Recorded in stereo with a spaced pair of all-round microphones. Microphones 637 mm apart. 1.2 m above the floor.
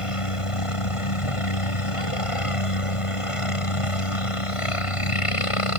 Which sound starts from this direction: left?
A helicopter, at 0.0 s.